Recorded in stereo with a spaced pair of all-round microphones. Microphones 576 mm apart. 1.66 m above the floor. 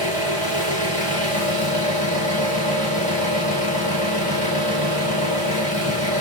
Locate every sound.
0.0 s an engine running: 50° right (ahead or behind), 1.8 m